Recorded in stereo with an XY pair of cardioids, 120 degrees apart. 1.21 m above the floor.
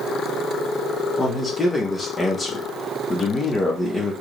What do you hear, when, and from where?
1.2 s a man speaking: 20° left, 1.1 m